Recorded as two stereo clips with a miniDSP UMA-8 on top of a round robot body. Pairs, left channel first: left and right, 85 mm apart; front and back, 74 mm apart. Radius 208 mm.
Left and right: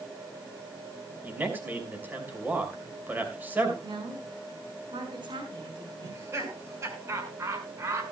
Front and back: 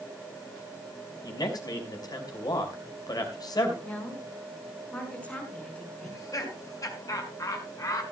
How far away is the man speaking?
About 5.5 m.